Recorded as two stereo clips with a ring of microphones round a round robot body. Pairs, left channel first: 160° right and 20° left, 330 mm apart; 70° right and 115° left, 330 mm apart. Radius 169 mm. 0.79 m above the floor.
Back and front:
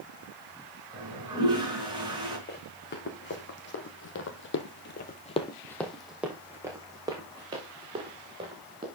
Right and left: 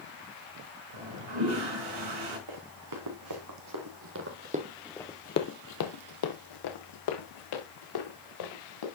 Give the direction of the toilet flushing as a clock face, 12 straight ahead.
9 o'clock.